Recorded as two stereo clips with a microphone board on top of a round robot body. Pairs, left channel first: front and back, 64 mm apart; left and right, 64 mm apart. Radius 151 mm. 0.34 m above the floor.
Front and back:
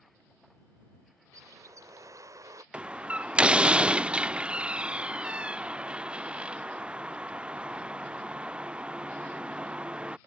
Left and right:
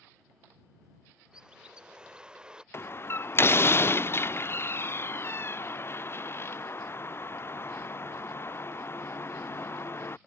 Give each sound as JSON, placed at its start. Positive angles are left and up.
{"t": 1.3, "sound": "a bird", "azimuth_deg": -165}
{"t": 2.7, "sound": "a door slam", "azimuth_deg": 115}